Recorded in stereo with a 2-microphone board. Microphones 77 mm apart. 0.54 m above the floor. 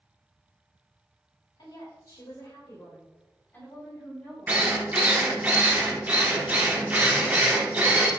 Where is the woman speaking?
65° left (ahead or behind), 2 m; by 5.5 s 5° left (ahead or behind), 4.5 m.